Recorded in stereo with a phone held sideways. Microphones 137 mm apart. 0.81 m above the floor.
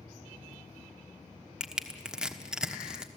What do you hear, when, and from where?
1.6 s crushing: 5° right (ahead or behind), 1.2 m